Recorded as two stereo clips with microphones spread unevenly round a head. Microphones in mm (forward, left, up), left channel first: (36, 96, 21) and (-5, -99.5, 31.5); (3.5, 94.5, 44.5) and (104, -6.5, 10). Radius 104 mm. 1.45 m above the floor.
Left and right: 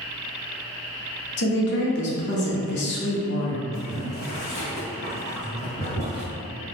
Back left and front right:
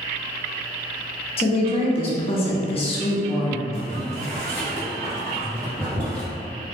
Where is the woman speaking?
110° left, 0.6 m.